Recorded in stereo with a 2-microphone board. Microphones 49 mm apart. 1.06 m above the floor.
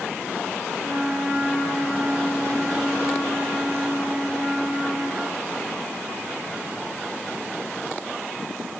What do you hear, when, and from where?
0.8 s a flute: 70° right (ahead or behind), 5.5 m